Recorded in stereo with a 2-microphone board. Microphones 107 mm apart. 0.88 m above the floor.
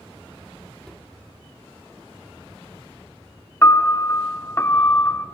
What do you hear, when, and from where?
0.8 s a cupboard door: 5° left (ahead or behind), 1.0 m
3.6 s a piano: 25° left (ahead or behind), 0.7 m